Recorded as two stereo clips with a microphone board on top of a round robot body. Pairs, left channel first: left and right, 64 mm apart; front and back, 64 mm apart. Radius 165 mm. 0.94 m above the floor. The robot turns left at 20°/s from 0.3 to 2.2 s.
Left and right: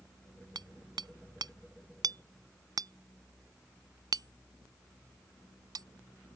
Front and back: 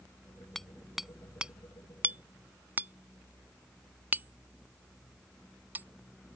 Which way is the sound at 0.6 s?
85° right.